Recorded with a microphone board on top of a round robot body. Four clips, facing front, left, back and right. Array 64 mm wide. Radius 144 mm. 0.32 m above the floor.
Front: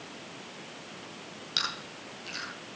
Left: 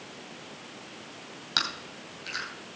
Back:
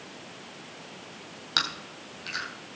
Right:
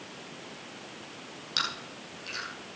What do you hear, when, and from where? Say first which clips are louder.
1.6 s chewing: left 1 dB, back 4 dB; 150° left, 3 m